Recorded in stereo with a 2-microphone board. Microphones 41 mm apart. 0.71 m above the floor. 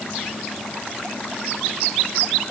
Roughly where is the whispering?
No whispering in this recording.